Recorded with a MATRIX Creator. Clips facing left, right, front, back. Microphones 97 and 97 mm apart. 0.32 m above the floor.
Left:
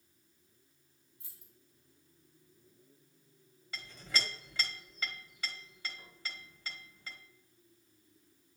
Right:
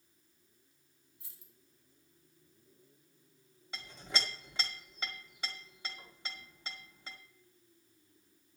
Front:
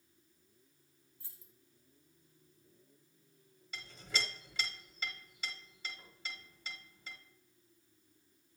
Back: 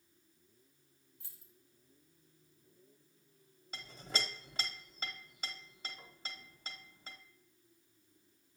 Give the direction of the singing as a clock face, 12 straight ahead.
I don't hear singing.